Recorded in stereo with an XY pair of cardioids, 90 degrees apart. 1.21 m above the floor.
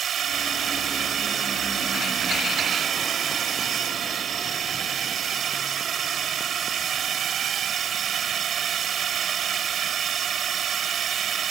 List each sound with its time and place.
0.0 s a drone: 60° right